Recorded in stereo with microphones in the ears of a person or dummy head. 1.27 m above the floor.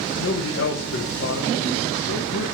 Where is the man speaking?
80° left, 0.9 m.